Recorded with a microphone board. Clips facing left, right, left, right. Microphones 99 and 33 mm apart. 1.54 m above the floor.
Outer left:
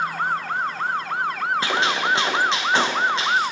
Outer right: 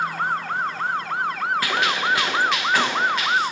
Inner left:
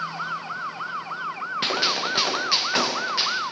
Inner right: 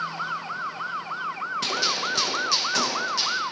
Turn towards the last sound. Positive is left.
turn(degrees=25)  # may be behind; listen again after turning